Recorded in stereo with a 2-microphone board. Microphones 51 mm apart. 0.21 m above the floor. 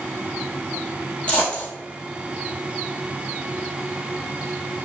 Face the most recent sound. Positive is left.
turn(degrees=30)  # may be behind; listen again after turning